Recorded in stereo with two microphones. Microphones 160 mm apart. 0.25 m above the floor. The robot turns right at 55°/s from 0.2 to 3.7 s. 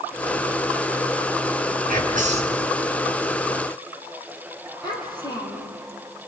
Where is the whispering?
75° right, 3.5 m; by 2.6 s 40° right, 3.5 m.